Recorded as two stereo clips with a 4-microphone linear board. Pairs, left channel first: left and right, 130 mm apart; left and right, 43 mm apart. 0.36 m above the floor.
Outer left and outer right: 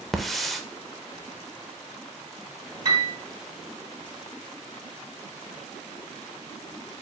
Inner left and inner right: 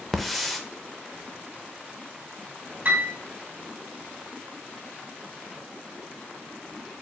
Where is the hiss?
Centre (ahead or behind), 0.6 m.